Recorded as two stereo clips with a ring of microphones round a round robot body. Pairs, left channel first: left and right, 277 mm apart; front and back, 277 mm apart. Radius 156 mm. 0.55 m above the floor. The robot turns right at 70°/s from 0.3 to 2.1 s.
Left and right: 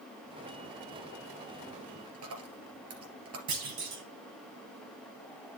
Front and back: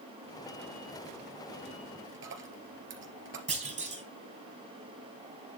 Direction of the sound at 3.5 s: 115° right.